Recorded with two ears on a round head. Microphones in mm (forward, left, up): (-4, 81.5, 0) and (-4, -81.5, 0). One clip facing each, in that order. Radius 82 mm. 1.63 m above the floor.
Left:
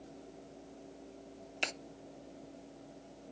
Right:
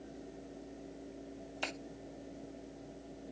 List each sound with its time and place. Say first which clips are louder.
1.6 s a finger snap: left 1 dB; 25° left (ahead or behind), 0.8 m